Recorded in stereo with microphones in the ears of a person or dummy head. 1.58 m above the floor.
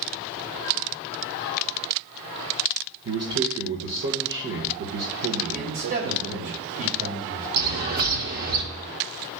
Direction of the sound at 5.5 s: 40° right (ahead or behind).